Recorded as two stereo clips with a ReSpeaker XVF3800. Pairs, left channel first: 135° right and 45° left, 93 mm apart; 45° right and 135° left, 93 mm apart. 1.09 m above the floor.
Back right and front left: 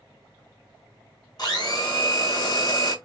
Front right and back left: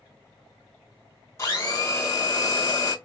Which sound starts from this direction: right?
A blender, at 1.4 s.